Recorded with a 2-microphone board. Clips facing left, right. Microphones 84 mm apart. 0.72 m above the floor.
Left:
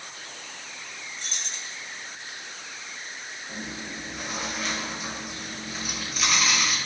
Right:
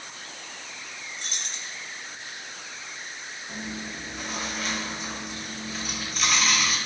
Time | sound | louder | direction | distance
1.2 | keys jangling | even | 60° right (ahead or behind) | 1.4 m
3.5 | chewing | right 1 dB | centre (ahead or behind) | 2 m